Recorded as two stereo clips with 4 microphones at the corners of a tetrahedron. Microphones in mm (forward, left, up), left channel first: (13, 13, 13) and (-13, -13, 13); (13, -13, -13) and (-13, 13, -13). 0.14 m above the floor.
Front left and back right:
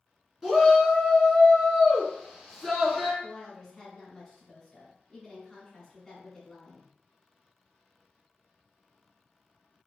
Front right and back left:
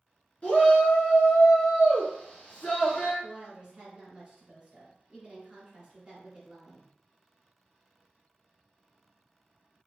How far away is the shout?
About 2 m.